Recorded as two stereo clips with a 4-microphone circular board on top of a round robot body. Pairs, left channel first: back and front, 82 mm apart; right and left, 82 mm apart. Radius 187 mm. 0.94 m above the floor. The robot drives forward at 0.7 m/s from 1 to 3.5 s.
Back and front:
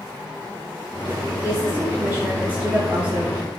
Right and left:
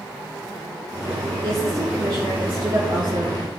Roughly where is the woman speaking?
Ahead left.